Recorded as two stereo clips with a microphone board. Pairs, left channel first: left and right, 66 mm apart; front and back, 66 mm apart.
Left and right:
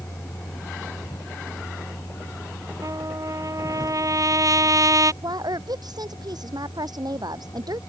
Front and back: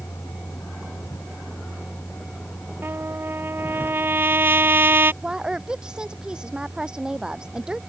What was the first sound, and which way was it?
A vehicle, 40° left.